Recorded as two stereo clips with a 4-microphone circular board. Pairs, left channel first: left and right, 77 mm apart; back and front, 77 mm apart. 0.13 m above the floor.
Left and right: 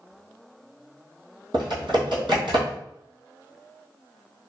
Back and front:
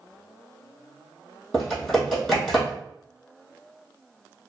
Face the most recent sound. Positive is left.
turn(degrees=-95)